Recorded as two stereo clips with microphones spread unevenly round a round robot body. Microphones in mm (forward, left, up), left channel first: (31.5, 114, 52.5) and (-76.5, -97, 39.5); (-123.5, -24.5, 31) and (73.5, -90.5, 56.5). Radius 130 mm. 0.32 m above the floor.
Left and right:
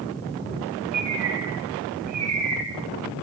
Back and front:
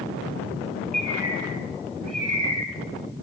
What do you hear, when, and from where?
0.9 s a bird: 110° right, 4 m